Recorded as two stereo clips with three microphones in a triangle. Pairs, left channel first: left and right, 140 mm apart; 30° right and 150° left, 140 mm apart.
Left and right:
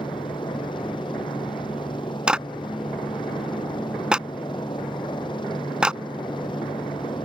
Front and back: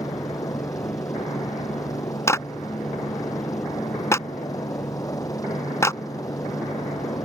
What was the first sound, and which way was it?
A helicopter, 35° left.